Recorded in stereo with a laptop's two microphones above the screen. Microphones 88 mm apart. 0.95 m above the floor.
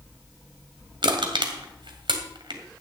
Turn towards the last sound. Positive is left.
turn(degrees=-65)  # may be behind; listen again after turning